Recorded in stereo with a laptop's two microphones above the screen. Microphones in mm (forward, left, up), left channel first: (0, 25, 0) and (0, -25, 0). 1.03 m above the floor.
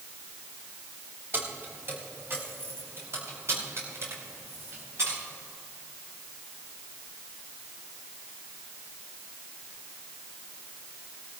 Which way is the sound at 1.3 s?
45° right (ahead or behind).